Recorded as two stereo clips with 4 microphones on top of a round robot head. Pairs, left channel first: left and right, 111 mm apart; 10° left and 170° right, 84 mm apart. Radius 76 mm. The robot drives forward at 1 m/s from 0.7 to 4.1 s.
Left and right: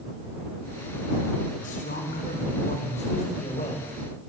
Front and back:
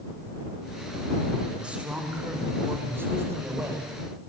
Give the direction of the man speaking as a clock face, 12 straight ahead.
8 o'clock.